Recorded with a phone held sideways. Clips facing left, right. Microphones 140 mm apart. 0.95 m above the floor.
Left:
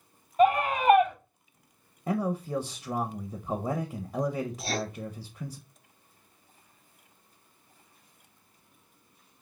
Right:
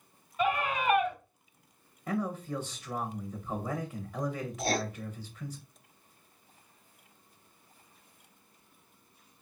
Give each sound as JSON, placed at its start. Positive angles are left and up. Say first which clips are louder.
{"t": 0.4, "sound": "a scream", "louder": "left 7 dB", "side_deg": 45, "distance_m": 3.0}
{"t": 2.1, "sound": "a man speaking", "louder": "left 4 dB", "side_deg": 30, "distance_m": 0.6}
{"t": 4.6, "sound": "writing", "louder": "right 1 dB", "side_deg": -50, "distance_m": 1.1}